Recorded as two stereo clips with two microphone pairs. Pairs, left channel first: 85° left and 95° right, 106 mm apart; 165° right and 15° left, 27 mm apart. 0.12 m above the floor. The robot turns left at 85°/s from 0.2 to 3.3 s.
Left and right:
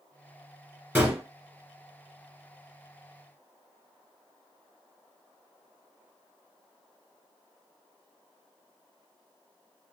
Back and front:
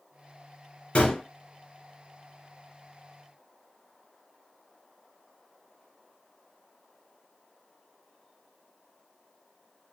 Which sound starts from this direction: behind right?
A gunshot, at 0.9 s.